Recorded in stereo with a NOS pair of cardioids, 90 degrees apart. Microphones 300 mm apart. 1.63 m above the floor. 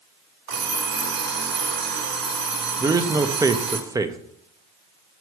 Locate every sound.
0.5 s an alarm clock: 65° right, 3 m
2.8 s a man speaking: 10° right, 0.7 m